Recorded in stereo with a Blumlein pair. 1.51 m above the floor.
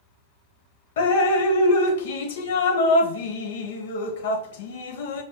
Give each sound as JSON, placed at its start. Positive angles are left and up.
{"t": 1.0, "sound": "dripping", "azimuth_deg": 55, "distance_m": 0.5}